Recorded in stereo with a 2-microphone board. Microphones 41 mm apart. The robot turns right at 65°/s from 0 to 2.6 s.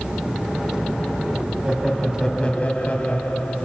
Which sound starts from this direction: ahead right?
Laughter, at 1.6 s.